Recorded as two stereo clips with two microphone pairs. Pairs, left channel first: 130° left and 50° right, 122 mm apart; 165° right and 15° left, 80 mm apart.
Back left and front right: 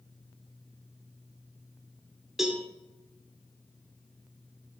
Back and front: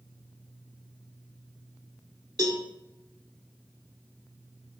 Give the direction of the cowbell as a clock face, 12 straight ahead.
11 o'clock.